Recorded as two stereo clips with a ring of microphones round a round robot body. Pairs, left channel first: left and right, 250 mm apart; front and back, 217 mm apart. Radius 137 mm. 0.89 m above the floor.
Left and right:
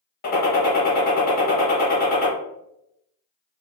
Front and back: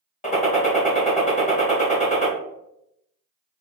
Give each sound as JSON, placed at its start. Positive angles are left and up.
{"t": 0.2, "sound": "a gunshot", "azimuth_deg": 50, "distance_m": 1.4}